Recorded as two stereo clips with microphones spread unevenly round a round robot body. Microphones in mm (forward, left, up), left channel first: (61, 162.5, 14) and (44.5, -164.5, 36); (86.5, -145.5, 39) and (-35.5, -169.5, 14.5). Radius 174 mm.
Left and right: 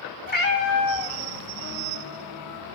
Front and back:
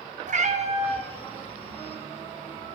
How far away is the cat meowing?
About 1.3 m.